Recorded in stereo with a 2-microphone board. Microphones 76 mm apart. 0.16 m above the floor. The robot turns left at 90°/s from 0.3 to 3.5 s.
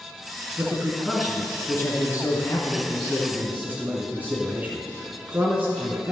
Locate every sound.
0.6 s a man speaking: 130° right, 1.6 m; by 6.1 s 35° right, 1.6 m